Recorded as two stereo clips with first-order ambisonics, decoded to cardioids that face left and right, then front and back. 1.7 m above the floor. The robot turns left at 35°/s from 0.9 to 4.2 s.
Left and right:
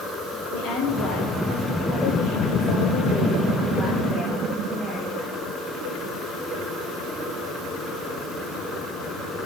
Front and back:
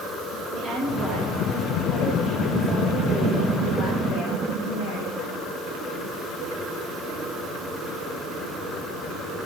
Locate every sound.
0.5 s a woman speaking: 120° left, 5.5 m; by 5.4 s 5° left, 5.5 m